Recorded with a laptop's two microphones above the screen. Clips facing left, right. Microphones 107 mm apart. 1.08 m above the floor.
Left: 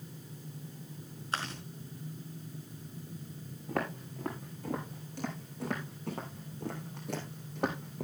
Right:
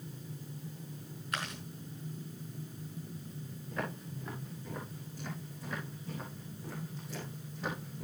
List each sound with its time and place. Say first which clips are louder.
1.3 s chewing: left 2 dB; 30° left (ahead or behind), 4.5 m
3.7 s footsteps: left 4 dB; 80° left, 6 m; by 8.1 s 60° left (ahead or behind), 4 m